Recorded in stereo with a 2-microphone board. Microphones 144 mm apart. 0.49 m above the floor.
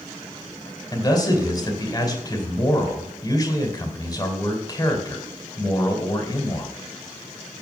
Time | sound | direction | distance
0.9 | a man speaking | 30° left (ahead or behind) | 2 m